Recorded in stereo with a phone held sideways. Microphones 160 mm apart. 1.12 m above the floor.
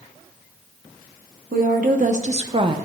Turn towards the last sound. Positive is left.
turn(degrees=-30)  # may be behind; listen again after turning